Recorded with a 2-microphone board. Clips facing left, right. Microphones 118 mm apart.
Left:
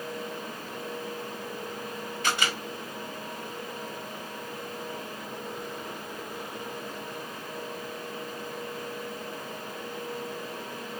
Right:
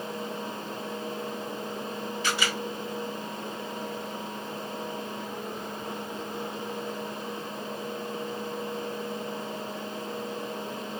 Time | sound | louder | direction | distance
2.2 | a camera shutter | left 1 dB | 50° left (ahead or behind) | 2.5 m